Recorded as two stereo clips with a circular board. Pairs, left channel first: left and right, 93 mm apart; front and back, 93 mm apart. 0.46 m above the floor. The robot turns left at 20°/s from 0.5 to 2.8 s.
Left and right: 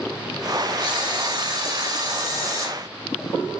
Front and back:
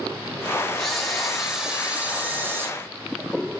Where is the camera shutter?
85° right, 0.8 m; by 2.7 s 125° right, 0.8 m.